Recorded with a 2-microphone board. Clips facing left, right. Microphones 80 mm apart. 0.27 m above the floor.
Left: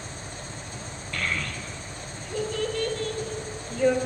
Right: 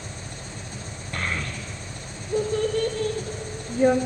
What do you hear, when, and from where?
0.0 s an engine running: 65° right (ahead or behind), 2.5 m
1.1 s a child speaking: 30° right (ahead or behind), 0.6 m